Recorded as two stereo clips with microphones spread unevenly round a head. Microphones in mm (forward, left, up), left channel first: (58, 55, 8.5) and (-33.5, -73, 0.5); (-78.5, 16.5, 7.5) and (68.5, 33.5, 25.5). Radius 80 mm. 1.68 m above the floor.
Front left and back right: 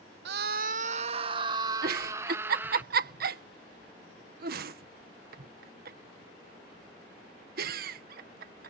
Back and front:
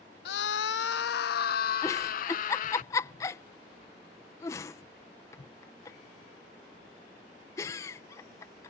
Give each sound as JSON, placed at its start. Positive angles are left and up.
{"t": 0.2, "sound": "a scream", "azimuth_deg": -145}
{"t": 1.8, "sound": "a giggle", "azimuth_deg": -100}